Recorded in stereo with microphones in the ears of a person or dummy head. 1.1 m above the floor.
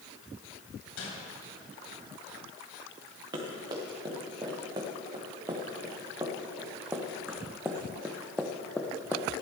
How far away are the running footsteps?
About 5 m.